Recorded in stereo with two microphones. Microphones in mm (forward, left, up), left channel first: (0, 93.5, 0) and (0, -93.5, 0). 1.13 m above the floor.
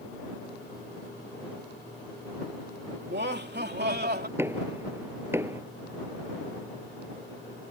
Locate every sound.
3.0 s laughter: 70° right (ahead or behind); by 4.3 s 60° right (ahead or behind)
4.4 s knocking: 15° right (ahead or behind)